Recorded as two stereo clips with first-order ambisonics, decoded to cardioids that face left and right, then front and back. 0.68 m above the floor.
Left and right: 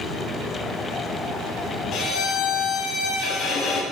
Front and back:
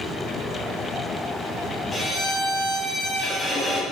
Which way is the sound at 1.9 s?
75° left.